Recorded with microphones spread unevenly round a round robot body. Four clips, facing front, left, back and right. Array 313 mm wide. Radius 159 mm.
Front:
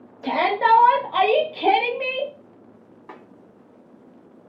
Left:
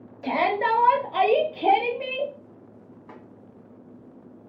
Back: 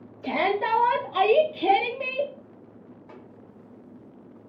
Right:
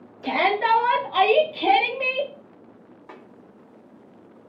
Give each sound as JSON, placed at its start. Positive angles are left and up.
{"t": 0.2, "sound": "a shout", "azimuth_deg": 45, "distance_m": 1.4}
{"t": 3.1, "sound": "a snare drum", "azimuth_deg": -25, "distance_m": 1.5}